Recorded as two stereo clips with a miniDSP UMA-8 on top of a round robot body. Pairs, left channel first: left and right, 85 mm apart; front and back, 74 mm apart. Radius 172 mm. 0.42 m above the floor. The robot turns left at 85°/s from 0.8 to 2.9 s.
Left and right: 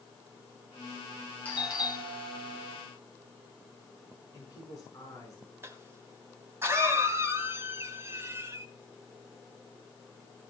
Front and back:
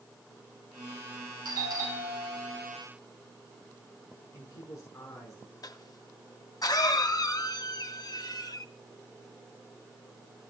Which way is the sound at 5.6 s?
30° right.